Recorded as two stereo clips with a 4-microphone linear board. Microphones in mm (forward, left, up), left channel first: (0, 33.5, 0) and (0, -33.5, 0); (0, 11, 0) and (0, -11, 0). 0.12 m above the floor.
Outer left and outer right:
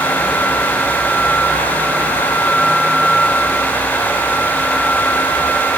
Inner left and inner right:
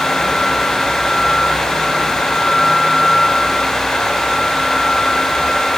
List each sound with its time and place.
Only background noise.